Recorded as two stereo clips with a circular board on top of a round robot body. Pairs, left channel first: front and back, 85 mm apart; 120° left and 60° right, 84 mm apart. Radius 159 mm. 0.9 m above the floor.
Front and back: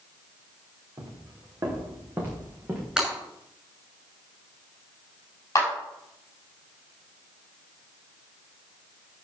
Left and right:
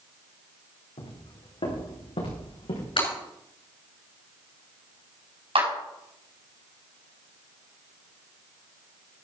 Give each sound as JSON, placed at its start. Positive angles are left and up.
{"t": 1.0, "sound": "footsteps", "azimuth_deg": 125, "distance_m": 5.0}
{"t": 3.0, "sound": "breaking glass", "azimuth_deg": 100, "distance_m": 6.0}
{"t": 5.5, "sound": "a clap", "azimuth_deg": -55, "distance_m": 5.0}